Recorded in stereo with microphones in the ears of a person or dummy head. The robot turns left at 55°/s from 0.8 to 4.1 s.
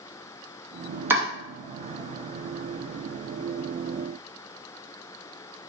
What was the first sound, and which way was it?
Chopping, 15° right (ahead or behind).